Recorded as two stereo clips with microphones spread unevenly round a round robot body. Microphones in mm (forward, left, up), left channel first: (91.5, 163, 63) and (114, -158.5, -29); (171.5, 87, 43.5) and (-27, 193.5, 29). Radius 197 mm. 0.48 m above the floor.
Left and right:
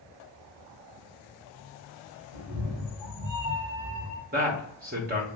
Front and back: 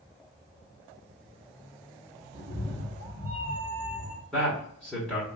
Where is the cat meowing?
85° right, 1.6 m; by 4.2 s 125° right, 1.7 m.